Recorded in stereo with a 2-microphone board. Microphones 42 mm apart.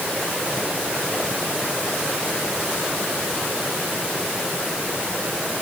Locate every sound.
Only background noise.